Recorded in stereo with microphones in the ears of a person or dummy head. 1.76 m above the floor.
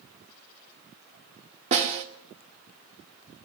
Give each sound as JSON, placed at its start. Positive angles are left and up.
{"t": 1.7, "sound": "a snare drum", "side_deg": -35, "distance_m": 1.6}